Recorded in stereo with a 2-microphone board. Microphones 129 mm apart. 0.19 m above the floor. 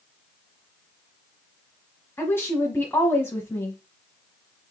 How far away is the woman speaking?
About 1.1 m.